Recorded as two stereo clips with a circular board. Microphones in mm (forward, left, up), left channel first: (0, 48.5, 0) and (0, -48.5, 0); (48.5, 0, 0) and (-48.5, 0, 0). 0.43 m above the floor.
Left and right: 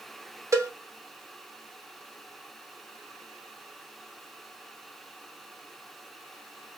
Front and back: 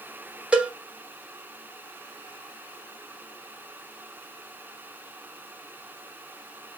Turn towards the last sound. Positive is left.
turn(degrees=-110)